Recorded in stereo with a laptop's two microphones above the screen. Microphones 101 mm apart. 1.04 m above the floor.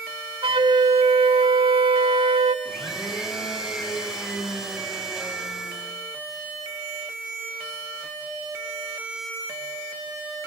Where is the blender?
Centre (ahead or behind), 5.5 m.